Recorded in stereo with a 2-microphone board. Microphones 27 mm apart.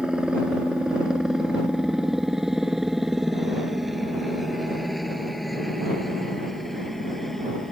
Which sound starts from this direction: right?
A helicopter, at 0.0 s.